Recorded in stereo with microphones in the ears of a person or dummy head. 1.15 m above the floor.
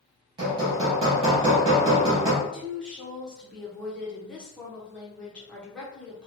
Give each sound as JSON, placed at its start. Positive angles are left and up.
{"t": 0.4, "sound": "hammering", "side_deg": -25, "distance_m": 0.7}
{"t": 2.4, "sound": "a woman speaking", "side_deg": 0, "distance_m": 0.7}